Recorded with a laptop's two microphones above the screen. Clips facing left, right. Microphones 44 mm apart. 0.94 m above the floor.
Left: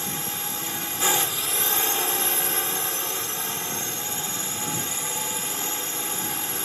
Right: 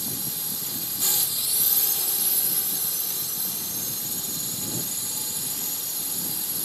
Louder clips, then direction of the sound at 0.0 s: Left 5 dB; 50° left (ahead or behind).